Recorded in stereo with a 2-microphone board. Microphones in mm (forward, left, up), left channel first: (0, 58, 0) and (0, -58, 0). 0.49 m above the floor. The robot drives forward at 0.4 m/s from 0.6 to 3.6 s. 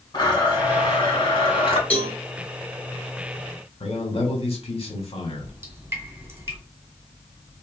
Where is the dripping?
20° right (ahead or behind), 1.6 m.